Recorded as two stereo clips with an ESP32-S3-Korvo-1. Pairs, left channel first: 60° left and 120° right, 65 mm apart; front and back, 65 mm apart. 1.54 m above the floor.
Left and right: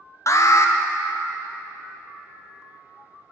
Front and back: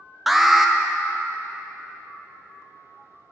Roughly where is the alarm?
Left.